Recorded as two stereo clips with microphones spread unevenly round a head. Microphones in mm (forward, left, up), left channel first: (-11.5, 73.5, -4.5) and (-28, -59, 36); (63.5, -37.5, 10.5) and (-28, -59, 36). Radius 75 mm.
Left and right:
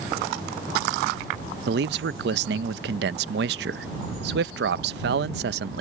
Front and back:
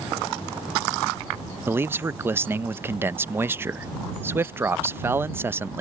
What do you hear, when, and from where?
1.7 s a man speaking: 95° right